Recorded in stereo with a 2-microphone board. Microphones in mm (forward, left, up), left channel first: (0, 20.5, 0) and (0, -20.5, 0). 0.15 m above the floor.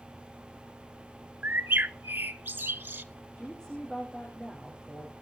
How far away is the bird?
About 0.5 m.